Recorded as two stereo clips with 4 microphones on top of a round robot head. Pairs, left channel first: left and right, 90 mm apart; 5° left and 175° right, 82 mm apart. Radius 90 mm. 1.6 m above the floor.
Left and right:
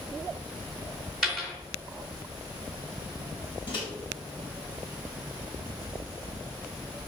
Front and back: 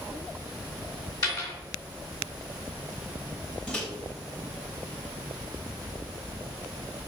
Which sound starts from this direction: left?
A microwave, at 3.7 s.